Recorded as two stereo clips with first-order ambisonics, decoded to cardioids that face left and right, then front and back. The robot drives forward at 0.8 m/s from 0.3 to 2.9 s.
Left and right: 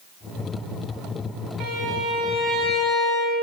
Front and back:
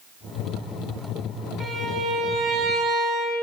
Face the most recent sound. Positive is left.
turn(degrees=-140)